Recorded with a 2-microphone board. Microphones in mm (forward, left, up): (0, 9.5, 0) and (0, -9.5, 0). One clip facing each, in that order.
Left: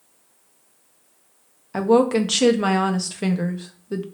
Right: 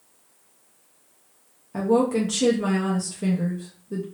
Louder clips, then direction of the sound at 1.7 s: Left 4 dB; 55° left (ahead or behind).